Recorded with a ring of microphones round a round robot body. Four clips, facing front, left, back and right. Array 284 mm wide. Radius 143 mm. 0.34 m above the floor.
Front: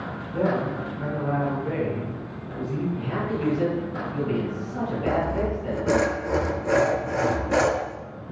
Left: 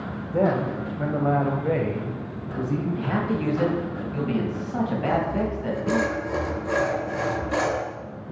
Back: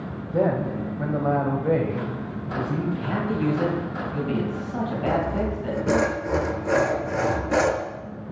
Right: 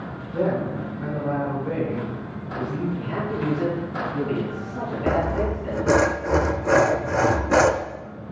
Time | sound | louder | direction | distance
0.3 | a man speaking | left 1 dB, back 2 dB | 140° left | 1.8 m
3.0 | a man speaking | left 2 dB, back 2 dB | 125° left | 3 m
5.1 | sawing | right 6 dB, even | 90° right | 0.6 m